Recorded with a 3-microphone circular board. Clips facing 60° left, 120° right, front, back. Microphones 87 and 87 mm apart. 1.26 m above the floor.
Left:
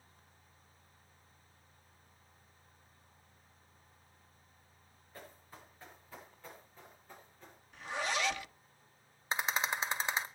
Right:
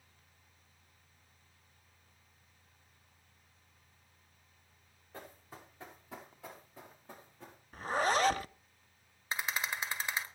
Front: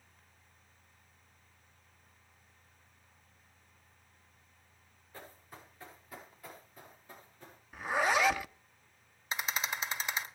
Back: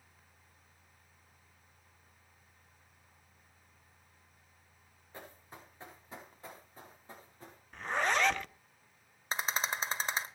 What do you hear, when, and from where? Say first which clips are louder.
5.1 s running footsteps: right 3 dB, back 1 dB; 110° right, 7 m; by 7.6 s 125° right, 6 m
7.7 s a zipper: right 6 dB, front 2 dB; 80° right, 0.6 m
9.3 s a rattle: left 3 dB, back 1 dB; 130° left, 1.8 m